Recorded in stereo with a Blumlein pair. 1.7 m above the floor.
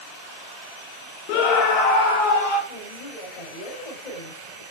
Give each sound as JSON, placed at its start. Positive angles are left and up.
{"t": 1.3, "sound": "a scream", "azimuth_deg": 45, "distance_m": 0.8}
{"t": 2.7, "sound": "a woman speaking", "azimuth_deg": 40, "distance_m": 8.5}